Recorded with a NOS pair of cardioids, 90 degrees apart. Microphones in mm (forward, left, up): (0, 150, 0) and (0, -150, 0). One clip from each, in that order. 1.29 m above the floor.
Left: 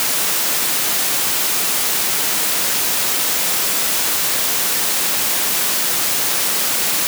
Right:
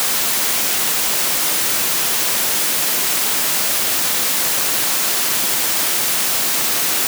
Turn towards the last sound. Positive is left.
No sound to turn to.